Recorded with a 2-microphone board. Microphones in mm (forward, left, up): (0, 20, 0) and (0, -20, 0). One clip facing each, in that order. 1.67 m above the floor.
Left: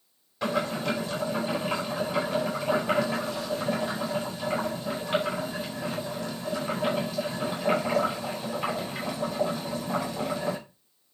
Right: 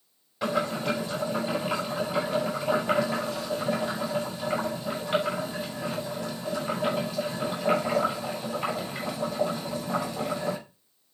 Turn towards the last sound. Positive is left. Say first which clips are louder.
# right 1 dB
turn(degrees=-10)  # may be behind; listen again after turning